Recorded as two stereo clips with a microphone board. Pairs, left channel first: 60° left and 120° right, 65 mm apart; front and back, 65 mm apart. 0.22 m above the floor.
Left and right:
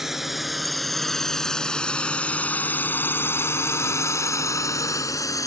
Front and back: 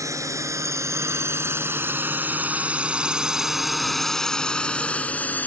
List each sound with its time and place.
0.0 s a drone: 155° left; by 5.5 s 60° left